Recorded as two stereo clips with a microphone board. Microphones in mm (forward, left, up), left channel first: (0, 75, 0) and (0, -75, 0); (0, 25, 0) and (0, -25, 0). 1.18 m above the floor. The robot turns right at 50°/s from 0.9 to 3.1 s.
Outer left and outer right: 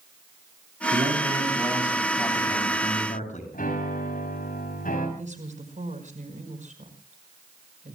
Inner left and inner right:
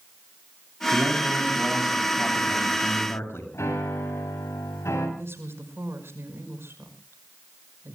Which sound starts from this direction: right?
A woman speaking, at 5.2 s.